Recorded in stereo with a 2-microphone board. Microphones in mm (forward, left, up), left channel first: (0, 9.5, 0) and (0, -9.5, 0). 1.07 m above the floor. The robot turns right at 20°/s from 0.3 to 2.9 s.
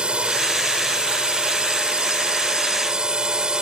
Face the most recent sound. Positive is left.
turn(degrees=-45)